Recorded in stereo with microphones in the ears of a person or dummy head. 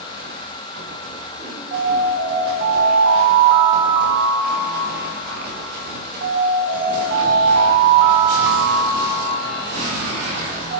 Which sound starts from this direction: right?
An alarm, at 1.7 s.